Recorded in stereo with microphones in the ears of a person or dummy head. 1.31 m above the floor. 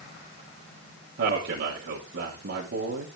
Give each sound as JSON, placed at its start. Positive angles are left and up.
{"t": 1.2, "sound": "a man speaking", "side_deg": -65, "distance_m": 2.0}